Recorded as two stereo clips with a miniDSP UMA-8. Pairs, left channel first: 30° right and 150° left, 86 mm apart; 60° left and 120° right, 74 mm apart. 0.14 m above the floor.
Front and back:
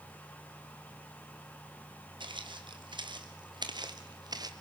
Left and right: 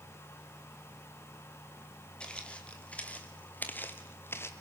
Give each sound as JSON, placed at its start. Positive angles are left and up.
{"t": 2.2, "sound": "footsteps", "azimuth_deg": 135, "distance_m": 2.5}